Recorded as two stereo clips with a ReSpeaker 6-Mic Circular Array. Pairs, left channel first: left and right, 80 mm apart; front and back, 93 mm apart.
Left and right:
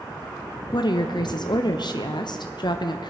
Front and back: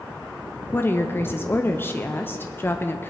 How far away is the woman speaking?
About 0.6 m.